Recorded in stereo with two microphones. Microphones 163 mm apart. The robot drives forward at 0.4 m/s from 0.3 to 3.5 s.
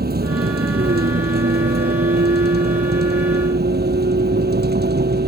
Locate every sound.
0.0 s a vehicle: 70° right (ahead or behind); by 5.3 s 80° right